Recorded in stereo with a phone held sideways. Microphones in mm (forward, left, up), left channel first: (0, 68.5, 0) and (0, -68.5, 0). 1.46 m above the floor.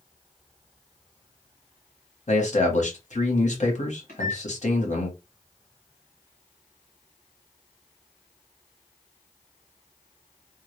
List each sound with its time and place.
2.3 s a man speaking: 60° left (ahead or behind), 1.0 m
4.1 s a microwave: 65° left (ahead or behind), 1.2 m